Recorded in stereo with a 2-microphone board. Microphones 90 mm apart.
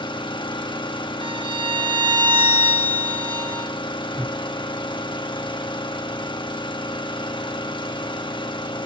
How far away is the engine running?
About 1.7 m.